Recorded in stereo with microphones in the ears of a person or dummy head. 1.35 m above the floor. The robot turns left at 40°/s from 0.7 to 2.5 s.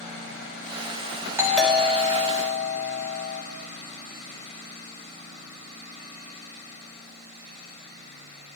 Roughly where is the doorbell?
Behind.